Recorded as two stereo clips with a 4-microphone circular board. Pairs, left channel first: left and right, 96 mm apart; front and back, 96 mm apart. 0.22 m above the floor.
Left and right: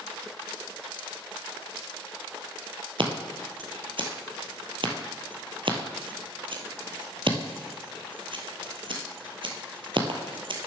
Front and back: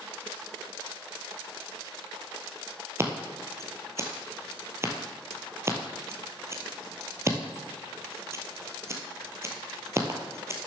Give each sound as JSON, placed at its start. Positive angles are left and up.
{"t": 3.0, "sound": "scissors", "azimuth_deg": -120, "distance_m": 1.3}